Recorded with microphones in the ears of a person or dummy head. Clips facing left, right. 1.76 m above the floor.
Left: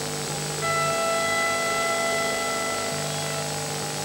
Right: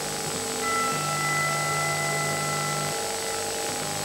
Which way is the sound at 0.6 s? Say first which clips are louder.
Left 4 dB; 45° left (ahead or behind).